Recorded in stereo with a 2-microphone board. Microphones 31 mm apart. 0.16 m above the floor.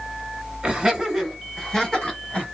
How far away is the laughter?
About 1.8 m.